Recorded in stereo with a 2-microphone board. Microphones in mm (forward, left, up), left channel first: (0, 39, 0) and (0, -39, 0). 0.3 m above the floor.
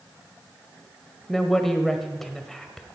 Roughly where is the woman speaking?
Centre.